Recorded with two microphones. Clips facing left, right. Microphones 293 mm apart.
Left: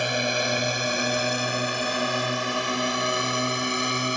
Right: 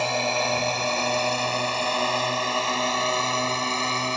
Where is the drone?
20° left (ahead or behind); by 4.2 s 15° left (ahead or behind).